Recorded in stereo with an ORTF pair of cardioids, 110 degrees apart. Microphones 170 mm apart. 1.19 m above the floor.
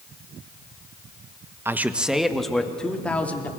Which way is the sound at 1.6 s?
15° right.